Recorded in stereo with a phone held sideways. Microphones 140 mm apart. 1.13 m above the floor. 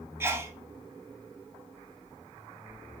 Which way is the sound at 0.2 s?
15° right (ahead or behind).